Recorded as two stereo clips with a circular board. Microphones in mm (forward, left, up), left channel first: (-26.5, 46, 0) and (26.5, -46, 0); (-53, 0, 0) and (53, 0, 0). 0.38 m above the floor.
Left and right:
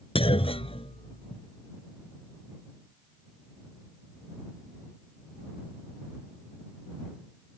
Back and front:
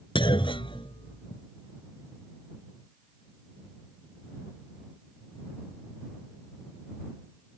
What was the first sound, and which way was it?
A clunk, 145° left.